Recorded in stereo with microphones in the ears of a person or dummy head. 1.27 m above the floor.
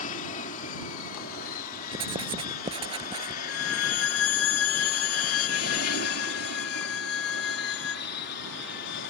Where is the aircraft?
40° left (ahead or behind); by 9.1 s 55° left (ahead or behind).